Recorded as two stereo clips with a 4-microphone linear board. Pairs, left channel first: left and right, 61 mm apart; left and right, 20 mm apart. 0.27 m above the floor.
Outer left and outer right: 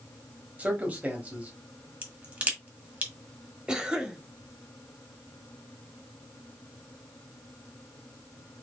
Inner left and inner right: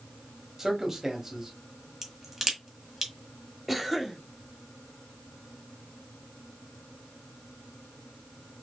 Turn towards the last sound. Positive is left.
turn(degrees=-15)  # may be behind; listen again after turning